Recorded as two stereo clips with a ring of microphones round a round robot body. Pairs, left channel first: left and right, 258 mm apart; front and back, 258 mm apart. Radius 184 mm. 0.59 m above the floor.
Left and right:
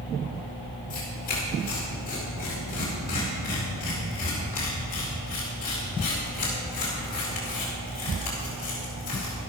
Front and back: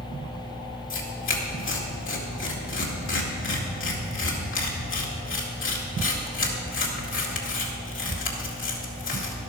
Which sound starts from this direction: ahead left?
Tearing paper, at 0.9 s.